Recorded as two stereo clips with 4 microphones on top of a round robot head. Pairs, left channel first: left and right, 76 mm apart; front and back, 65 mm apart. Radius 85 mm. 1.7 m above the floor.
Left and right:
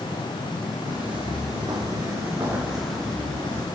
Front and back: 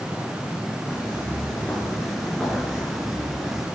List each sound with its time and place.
0.9 s footsteps: 75° right, 2 m; by 3.6 s 100° left, 1.7 m